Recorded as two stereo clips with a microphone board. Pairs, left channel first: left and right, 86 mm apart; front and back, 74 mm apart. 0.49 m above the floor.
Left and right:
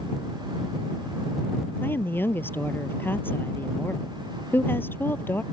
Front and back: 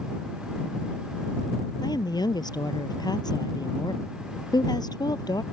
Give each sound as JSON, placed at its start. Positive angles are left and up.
{"t": 1.8, "sound": "a woman speaking", "azimuth_deg": 25}